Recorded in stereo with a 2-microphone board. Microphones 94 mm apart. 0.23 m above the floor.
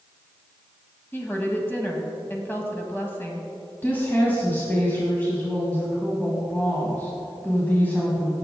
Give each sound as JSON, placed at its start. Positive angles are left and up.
{"t": 1.1, "sound": "a woman speaking", "side_deg": 20, "distance_m": 1.5}
{"t": 3.8, "sound": "a woman speaking", "side_deg": 20, "distance_m": 1.9}